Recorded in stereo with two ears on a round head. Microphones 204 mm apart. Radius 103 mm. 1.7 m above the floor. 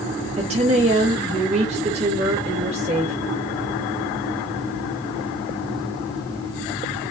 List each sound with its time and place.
0.4 s a woman speaking: 30° right (ahead or behind), 2.5 m